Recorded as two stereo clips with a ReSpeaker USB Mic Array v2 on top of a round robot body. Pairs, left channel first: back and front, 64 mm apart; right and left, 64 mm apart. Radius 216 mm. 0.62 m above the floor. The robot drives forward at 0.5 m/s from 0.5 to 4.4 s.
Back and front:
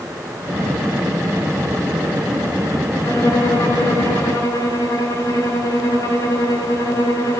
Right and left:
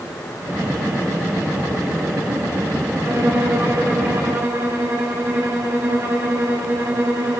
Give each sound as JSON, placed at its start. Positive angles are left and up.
{"t": 3.0, "sound": "a violin", "azimuth_deg": 140, "distance_m": 9.5}